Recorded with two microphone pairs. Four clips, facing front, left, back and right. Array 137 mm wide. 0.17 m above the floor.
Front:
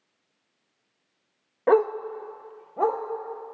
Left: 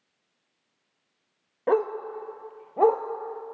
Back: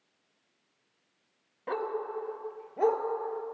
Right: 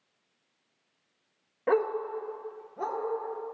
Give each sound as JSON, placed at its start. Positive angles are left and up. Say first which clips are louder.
{"t": 1.7, "sound": "a dog barking", "louder": "left 2 dB, front 12 dB", "azimuth_deg": 0, "distance_m": 0.7}